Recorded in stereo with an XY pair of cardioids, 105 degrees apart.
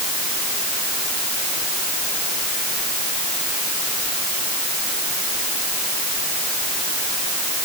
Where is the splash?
No splash in this recording.